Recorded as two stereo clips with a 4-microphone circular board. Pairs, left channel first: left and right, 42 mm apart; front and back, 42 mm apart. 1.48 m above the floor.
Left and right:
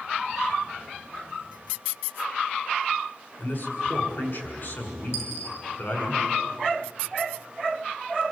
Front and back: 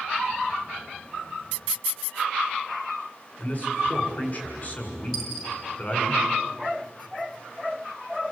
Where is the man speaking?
60° left, 7 m.